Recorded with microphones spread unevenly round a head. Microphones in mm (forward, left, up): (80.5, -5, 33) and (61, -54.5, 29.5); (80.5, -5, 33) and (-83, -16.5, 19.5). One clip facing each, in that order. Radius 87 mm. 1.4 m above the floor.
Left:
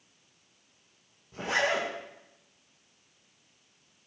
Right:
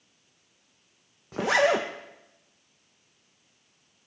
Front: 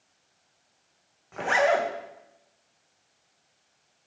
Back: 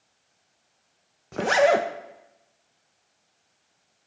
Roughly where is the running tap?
I don't hear a running tap.